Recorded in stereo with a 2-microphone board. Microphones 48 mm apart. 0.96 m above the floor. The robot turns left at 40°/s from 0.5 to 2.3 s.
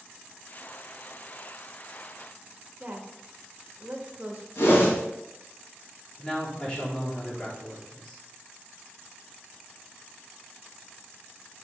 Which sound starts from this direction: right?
A woman speaking, at 2.8 s.